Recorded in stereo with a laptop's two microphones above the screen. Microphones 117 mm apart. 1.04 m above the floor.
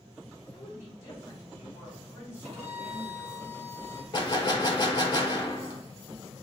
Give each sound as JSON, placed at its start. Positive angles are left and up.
{"t": 0.5, "sound": "a woman speaking", "side_deg": 20, "distance_m": 1.6}
{"t": 2.4, "sound": "a violin", "side_deg": -75, "distance_m": 1.3}
{"t": 4.1, "sound": "a gunshot", "side_deg": 35, "distance_m": 0.9}